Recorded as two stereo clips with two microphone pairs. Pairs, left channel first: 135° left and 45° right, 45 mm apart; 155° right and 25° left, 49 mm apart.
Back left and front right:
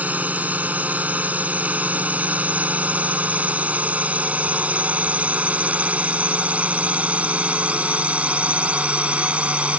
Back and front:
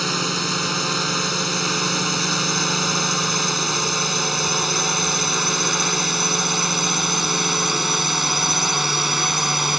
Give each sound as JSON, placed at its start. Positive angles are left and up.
{"t": 0.0, "sound": "a drone", "azimuth_deg": -70}